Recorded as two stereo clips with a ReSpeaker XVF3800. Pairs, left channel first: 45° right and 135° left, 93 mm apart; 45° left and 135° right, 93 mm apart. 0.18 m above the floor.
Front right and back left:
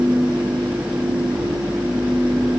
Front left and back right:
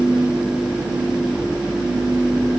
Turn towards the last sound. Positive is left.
No sound to turn to.